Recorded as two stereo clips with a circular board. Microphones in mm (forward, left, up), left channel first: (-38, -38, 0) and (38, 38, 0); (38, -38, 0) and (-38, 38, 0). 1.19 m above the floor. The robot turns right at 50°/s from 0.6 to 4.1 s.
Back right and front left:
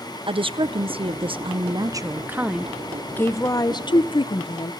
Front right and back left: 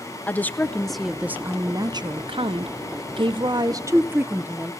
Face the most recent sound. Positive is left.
turn(degrees=-160)